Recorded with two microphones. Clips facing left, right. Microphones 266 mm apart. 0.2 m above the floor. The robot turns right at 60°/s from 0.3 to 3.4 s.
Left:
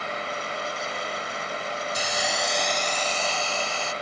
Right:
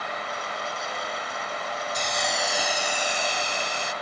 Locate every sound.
1.9 s a hiss: 10° left (ahead or behind), 0.6 m; by 3.9 s 15° right (ahead or behind), 0.6 m